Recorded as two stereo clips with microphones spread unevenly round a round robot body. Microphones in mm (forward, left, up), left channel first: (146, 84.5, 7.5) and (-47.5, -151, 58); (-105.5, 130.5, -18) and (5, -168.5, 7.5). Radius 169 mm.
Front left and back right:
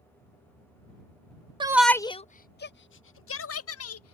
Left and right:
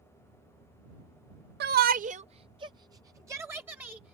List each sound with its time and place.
1.6 s a shout: 55° right; by 4.2 s 15° left